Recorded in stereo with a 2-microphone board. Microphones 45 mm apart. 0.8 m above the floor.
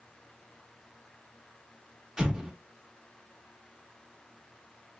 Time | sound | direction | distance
2.2 | an explosion | 15° right (ahead or behind) | 0.8 m